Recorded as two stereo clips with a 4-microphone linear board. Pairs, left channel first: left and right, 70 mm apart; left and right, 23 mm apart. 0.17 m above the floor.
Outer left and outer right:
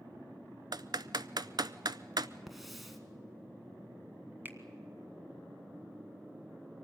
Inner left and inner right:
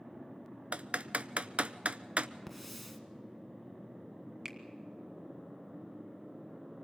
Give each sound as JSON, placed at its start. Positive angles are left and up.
{"t": 0.7, "sound": "typing on a keyboard", "side_deg": -70, "distance_m": 0.5}
{"t": 2.5, "sound": "a hiss", "side_deg": 0, "distance_m": 1.5}
{"t": 4.5, "sound": "a finger snap", "side_deg": -30, "distance_m": 1.4}